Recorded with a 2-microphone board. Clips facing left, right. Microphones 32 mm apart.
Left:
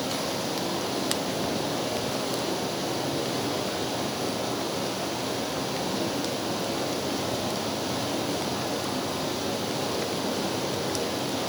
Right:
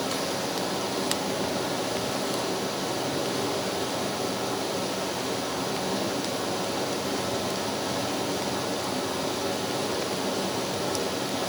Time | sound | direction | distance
0.0 | running water | centre (ahead or behind) | 4 m